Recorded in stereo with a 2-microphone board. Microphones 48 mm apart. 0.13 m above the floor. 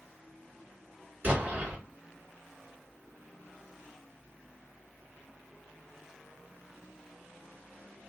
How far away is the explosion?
About 2 m.